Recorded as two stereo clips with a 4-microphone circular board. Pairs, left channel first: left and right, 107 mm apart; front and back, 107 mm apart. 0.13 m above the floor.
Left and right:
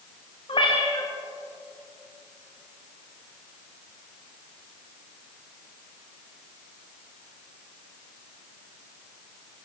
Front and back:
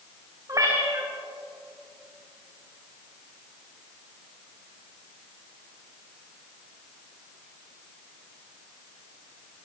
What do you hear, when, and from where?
0.5 s a cat meowing: 125° left, 6 m